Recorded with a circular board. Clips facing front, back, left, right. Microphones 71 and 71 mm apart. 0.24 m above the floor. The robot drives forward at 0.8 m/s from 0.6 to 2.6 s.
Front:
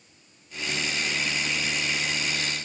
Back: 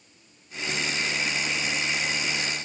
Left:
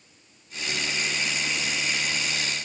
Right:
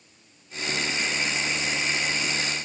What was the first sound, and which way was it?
Only background noise.